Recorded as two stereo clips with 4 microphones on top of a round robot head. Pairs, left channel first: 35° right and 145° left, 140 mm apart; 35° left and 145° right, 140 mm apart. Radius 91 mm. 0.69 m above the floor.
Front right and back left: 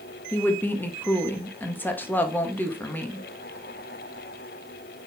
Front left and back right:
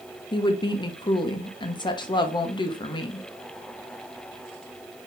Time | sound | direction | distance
0.3 | a woman speaking | 30° left | 0.7 m